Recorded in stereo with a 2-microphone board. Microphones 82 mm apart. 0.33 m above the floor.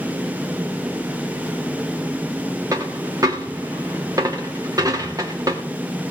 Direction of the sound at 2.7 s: 45° right (ahead or behind).